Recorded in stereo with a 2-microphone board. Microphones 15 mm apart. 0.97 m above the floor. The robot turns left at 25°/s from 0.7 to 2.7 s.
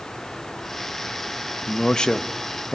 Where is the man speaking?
60° left (ahead or behind), 1.2 m; by 2.8 s 40° left (ahead or behind), 1.2 m.